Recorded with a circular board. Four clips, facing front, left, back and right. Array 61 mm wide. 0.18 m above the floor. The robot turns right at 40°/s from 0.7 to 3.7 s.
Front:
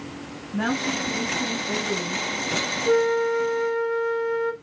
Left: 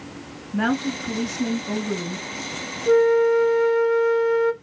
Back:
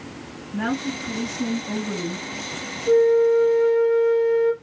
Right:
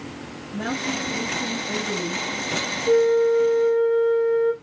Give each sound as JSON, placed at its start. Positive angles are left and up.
{"t": 0.5, "sound": "a woman speaking", "azimuth_deg": 80, "distance_m": 2.5}
{"t": 2.9, "sound": "a flute", "azimuth_deg": 50, "distance_m": 1.0}